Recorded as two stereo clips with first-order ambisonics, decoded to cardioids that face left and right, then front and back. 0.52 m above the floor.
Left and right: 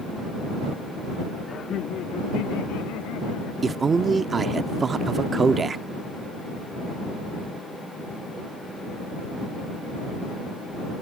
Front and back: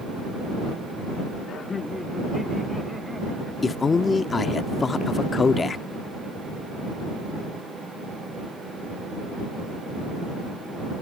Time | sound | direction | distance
1.5 | laughter | 30° left | ?
3.6 | a man speaking | 45° right | ?